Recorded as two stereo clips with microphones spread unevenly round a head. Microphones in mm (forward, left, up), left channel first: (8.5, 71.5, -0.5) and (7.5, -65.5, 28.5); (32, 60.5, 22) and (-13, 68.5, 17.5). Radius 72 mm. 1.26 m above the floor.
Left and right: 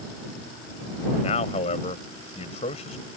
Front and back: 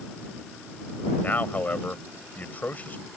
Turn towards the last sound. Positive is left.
turn(degrees=40)